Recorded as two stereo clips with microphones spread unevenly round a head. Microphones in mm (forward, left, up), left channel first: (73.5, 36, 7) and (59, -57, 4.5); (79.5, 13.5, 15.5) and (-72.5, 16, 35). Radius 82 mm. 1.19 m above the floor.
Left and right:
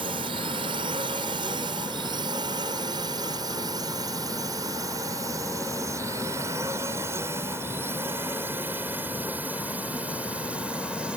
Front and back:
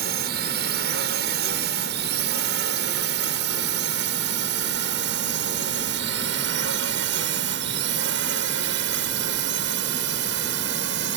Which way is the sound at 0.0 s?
155° right.